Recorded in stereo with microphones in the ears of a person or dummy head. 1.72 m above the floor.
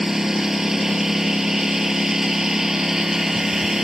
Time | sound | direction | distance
0.0 | a lawn mower | 5° right (ahead or behind) | ?